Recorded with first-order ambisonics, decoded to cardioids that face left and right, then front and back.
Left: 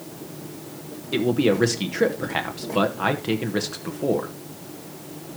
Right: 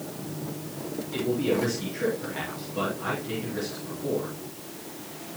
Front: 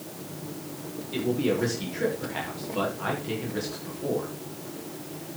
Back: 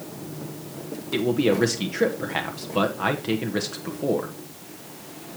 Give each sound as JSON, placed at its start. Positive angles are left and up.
{"t": 1.1, "sound": "a man speaking", "azimuth_deg": 125, "distance_m": 1.1}